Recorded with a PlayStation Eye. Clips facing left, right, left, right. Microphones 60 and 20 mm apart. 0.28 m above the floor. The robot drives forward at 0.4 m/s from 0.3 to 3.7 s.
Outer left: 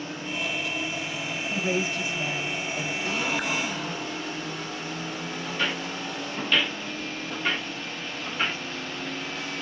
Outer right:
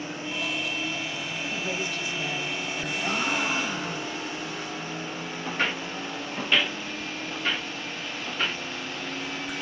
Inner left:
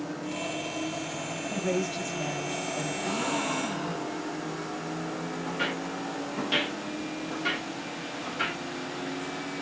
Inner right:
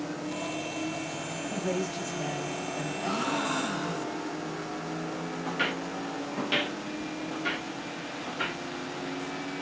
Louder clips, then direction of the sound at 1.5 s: Outer left 6 dB, inner left 2 dB; 25° left (ahead or behind).